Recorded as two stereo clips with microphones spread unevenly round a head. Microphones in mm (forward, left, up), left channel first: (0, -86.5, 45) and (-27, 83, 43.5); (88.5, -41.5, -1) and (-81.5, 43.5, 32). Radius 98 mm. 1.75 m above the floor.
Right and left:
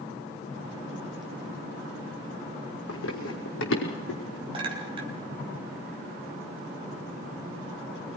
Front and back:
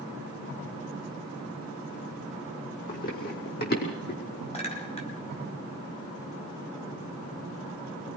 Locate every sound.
2.9 s running footsteps: 75° right, 5 m; by 4.4 s 65° right, 5.5 m
4.5 s a clink: 35° left, 4.5 m